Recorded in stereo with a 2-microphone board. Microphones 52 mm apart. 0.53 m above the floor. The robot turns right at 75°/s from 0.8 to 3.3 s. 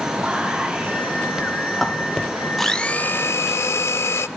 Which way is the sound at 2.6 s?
5° left.